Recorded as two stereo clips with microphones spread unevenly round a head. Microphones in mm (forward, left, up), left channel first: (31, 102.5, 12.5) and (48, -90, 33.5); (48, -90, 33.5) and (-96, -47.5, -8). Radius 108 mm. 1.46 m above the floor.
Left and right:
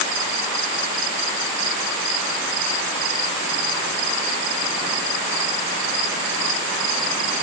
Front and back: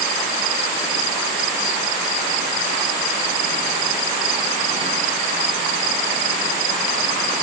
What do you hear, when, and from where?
Only background noise.